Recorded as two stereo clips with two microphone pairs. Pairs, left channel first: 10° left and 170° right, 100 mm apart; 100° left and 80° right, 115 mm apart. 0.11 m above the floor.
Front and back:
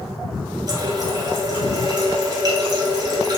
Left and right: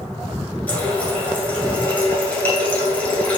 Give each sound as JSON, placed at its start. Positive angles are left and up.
{"t": 0.7, "sound": "a running tap", "azimuth_deg": 170, "distance_m": 1.3}